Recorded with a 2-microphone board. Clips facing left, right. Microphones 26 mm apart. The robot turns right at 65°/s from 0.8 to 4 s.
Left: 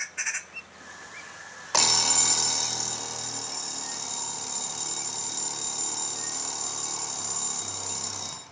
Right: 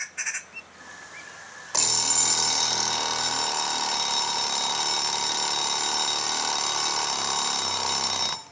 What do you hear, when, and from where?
1.7 s an alarm clock: 160° left, 0.6 m; by 8.4 s 55° right, 0.6 m